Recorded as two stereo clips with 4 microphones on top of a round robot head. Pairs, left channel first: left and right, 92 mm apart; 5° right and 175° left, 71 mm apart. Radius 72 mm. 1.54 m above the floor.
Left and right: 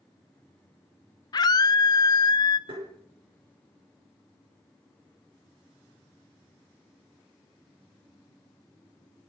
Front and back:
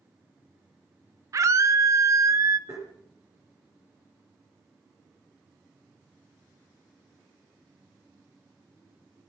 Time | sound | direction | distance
1.3 | a scream | 135° left | 1.0 m
2.7 | tapping | 115° right | 6 m